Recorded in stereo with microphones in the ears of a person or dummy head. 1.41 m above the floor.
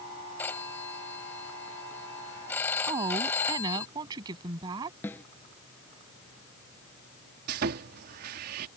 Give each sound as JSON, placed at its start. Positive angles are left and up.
{"t": 0.4, "sound": "a phone ringing", "side_deg": 15}
{"t": 2.9, "sound": "a woman speaking", "side_deg": -25}
{"t": 5.0, "sound": "a snare drum", "side_deg": 15}
{"t": 7.5, "sound": "sawing", "side_deg": -45}